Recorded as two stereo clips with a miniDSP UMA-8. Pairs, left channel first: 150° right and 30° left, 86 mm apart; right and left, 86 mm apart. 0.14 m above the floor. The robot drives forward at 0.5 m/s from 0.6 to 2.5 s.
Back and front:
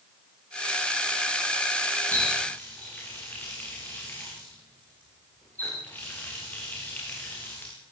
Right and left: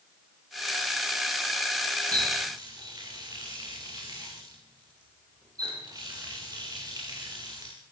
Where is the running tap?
135° left, 9 m; by 7.7 s 140° left, 9.5 m.